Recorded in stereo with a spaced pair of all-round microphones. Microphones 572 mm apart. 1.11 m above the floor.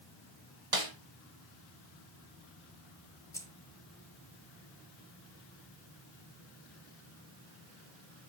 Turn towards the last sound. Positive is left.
turn(degrees=5)  # may be behind; listen again after turning